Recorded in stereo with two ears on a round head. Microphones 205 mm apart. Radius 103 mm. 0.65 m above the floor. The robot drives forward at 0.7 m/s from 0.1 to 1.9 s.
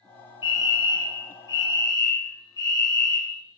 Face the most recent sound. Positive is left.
turn(degrees=15)  # may be behind; listen again after turning